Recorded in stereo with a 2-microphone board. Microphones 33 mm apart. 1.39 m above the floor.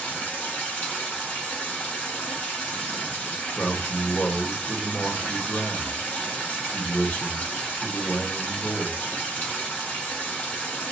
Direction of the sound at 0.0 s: 50° left (ahead or behind).